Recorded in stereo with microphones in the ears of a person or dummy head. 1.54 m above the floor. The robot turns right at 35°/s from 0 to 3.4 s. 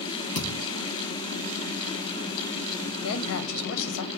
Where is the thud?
45° left (ahead or behind), 1.5 m; by 0.7 s 35° left (ahead or behind), 1.5 m.